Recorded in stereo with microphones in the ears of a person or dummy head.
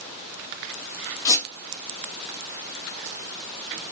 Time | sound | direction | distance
1.2 | a squeak | 20° left (ahead or behind) | 0.8 m